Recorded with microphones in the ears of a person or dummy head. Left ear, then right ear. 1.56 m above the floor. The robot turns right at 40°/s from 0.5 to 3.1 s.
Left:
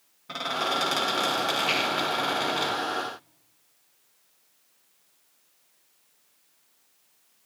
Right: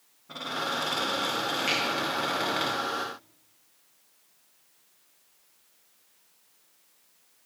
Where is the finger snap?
60° right (ahead or behind), 5 m; by 1.8 s 65° right (ahead or behind), 5 m.